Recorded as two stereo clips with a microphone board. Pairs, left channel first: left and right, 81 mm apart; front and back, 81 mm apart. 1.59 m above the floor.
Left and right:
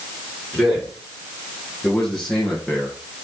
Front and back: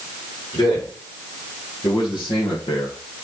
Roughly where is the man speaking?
Ahead.